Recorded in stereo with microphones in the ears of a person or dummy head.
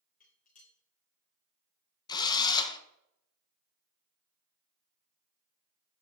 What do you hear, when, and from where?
0.2 s dishes clattering: 35° left (ahead or behind), 3.5 m
2.1 s a drill: 25° left (ahead or behind), 1.3 m